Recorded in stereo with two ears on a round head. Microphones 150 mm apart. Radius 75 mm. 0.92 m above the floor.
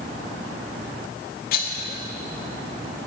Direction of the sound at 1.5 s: 55° left (ahead or behind).